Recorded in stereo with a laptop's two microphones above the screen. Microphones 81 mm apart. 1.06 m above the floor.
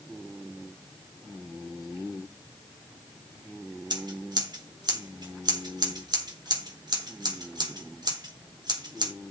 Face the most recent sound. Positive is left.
turn(degrees=-55)  # may be behind; listen again after turning